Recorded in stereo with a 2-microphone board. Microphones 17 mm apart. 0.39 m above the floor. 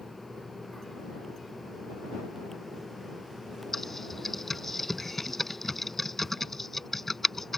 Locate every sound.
3.7 s typing on a keyboard: 10° left (ahead or behind)